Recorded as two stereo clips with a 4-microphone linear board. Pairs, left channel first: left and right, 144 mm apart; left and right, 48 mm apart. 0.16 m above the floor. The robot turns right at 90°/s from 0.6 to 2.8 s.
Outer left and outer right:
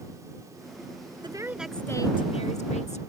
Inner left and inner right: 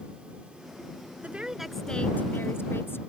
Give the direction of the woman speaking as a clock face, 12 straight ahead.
1 o'clock.